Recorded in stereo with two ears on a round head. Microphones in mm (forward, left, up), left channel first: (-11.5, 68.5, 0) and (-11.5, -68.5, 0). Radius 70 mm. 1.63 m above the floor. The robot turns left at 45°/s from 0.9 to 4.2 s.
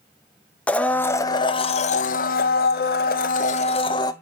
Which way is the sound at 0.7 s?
170° left.